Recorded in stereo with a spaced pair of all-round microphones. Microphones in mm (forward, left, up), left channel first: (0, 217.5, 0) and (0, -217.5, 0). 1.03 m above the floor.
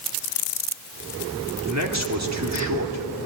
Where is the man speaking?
40° right (ahead or behind), 3 m.